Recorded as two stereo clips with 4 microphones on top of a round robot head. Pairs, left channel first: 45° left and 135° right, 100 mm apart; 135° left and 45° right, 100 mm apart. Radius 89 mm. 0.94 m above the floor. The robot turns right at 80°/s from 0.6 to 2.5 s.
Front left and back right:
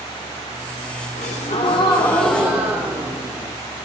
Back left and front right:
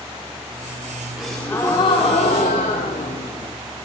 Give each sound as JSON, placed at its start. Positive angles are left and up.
{"t": 1.2, "sound": "a gasp", "azimuth_deg": 40, "distance_m": 0.7}